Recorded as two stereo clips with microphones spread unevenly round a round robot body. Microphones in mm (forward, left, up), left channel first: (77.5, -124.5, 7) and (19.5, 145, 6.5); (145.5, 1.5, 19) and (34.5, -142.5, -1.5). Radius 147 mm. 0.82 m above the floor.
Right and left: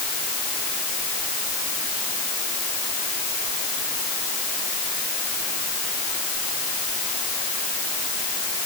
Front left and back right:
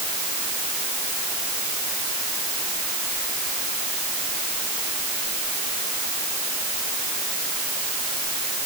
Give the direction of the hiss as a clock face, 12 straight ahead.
I don't hear a hiss.